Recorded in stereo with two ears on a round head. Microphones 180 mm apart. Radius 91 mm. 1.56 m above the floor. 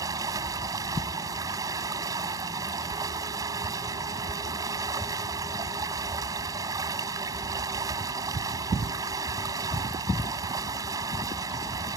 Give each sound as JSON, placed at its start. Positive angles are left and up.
{"t": 0.0, "sound": "running water", "side_deg": -15}